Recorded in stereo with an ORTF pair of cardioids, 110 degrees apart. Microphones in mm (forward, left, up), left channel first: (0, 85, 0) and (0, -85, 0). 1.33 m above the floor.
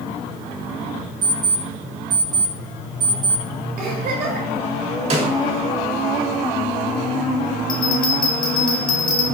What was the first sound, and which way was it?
An alarm clock, 50° right.